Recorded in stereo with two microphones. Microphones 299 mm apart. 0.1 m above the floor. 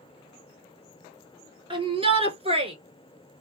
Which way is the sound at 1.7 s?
15° right (ahead or behind).